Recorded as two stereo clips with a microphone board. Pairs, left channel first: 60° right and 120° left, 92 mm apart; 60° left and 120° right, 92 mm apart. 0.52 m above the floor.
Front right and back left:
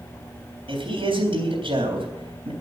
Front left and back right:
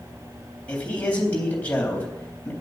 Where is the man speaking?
135° left, 3.5 m.